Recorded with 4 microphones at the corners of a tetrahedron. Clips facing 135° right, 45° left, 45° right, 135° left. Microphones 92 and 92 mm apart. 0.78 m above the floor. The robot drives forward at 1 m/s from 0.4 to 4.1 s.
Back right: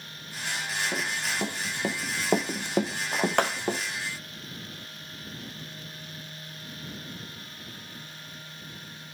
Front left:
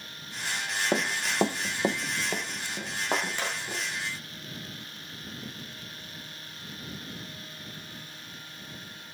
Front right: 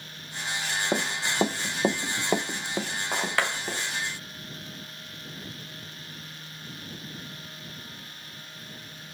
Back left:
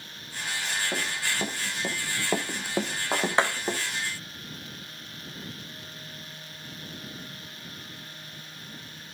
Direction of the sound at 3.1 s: 65° left.